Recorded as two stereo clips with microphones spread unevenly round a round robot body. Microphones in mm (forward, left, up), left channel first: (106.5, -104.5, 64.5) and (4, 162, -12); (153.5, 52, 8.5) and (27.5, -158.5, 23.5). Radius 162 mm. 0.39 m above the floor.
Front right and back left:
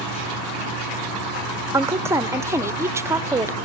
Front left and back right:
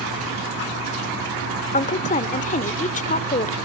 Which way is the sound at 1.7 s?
70° left.